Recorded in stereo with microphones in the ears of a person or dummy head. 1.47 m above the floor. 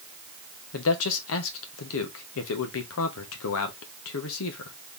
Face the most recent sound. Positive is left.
turn(degrees=85)